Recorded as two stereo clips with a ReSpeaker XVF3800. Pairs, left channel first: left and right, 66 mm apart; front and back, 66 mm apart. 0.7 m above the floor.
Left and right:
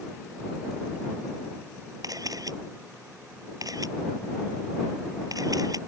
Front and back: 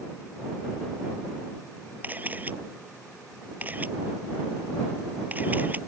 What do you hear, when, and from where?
2.0 s a camera shutter: 115° right